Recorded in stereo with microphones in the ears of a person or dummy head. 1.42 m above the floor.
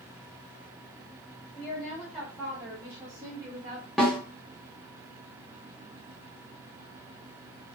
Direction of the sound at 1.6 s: 5° left (ahead or behind).